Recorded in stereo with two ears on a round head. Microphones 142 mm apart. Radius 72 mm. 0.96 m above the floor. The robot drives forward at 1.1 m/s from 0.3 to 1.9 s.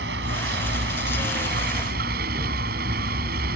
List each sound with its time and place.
0.0 s a vehicle: 90° right; by 3.6 s 70° right (ahead or behind)